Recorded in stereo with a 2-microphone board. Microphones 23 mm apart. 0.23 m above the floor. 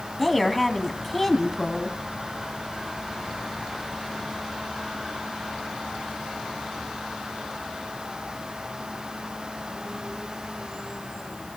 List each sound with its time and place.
0.2 s a woman speaking: 5° left (ahead or behind), 1.6 m